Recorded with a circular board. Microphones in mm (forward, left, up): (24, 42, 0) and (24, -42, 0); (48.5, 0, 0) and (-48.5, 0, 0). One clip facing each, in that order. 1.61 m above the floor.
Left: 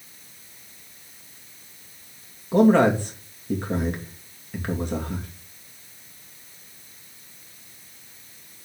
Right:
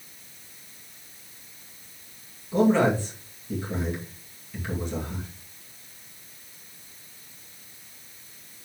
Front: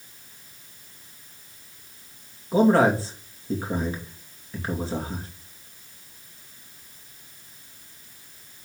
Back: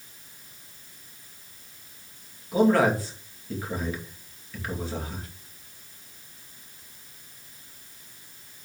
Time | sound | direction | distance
2.5 | a man speaking | 60° left | 2.5 m